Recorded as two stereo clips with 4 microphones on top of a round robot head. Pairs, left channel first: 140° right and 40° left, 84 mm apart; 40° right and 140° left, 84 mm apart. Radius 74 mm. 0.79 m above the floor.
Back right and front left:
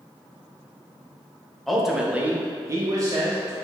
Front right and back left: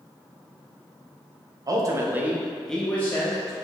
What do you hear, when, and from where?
1.7 s a man speaking: 130° left, 0.6 m; by 3.5 s 5° left, 0.8 m